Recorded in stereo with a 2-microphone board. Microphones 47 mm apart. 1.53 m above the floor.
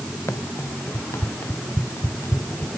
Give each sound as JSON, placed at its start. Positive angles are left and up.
{"t": 0.3, "sound": "running footsteps", "side_deg": 80}